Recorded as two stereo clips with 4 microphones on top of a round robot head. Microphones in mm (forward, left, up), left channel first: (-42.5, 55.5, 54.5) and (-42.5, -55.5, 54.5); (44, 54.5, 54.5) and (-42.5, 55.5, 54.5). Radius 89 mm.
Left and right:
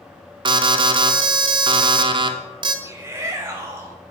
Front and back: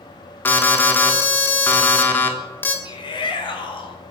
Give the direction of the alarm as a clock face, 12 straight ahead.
2 o'clock.